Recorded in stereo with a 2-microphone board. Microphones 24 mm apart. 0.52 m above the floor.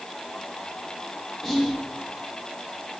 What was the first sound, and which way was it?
Whispering, 10° right (ahead or behind).